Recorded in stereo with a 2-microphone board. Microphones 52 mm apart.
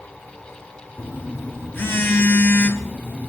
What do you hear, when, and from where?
1.0 s a phone buzzing: 45° left (ahead or behind), 1.3 m